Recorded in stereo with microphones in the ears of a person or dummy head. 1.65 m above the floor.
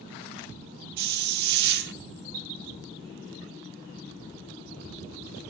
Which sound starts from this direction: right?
A hiss, at 1.0 s.